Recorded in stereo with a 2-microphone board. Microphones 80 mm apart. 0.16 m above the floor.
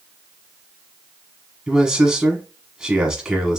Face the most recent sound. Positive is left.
turn(degrees=-5)  # may be behind; listen again after turning